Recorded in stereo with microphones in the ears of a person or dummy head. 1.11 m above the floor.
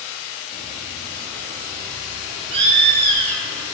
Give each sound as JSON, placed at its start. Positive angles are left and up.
{"t": 0.5, "sound": "a bird", "side_deg": -35, "distance_m": 2.5}